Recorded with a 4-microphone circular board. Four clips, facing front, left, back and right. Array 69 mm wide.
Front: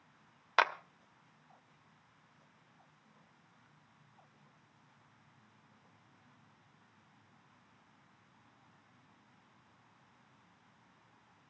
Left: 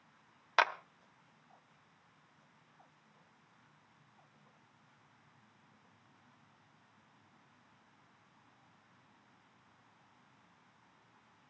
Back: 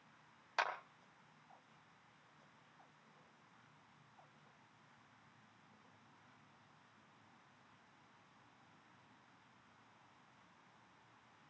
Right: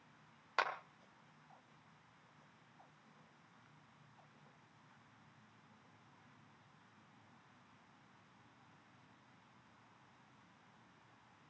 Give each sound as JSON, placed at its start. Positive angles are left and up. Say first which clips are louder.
{"t": 0.6, "sound": "a clap", "louder": "left 8 dB, front 9 dB", "azimuth_deg": 35, "distance_m": 1.4}